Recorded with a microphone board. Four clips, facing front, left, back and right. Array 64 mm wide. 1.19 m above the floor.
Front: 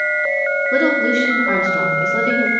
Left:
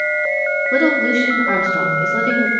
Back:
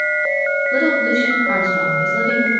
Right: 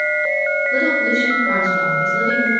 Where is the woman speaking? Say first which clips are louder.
Left 4 dB, front 1 dB; 55° left, 3 m.